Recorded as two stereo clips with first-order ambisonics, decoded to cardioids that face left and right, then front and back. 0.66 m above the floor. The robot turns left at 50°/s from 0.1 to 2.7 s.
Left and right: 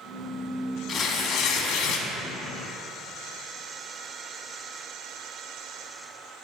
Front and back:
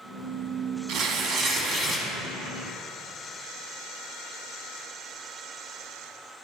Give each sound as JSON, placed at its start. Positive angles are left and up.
{"t": 0.9, "sound": "tearing paper", "azimuth_deg": 155, "distance_m": 0.9}